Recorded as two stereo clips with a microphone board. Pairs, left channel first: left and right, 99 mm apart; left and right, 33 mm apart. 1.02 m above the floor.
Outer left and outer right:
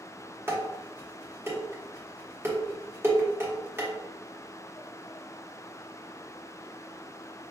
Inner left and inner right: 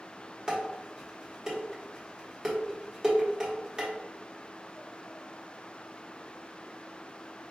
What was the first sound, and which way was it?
Dishes clattering, 25° right (ahead or behind).